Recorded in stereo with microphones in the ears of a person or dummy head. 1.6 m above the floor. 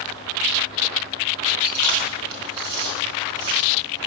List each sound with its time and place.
1.6 s chewing: 65° right (ahead or behind), 4.5 m